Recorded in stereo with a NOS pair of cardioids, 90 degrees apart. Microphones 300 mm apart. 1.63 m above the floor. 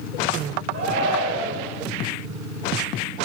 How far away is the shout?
About 2 m.